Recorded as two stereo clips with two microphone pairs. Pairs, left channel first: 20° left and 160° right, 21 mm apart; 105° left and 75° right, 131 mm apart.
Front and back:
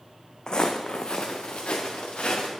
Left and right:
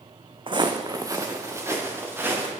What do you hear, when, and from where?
0.5 s footsteps: 25° right, 0.6 m; by 2.5 s straight ahead, 1.9 m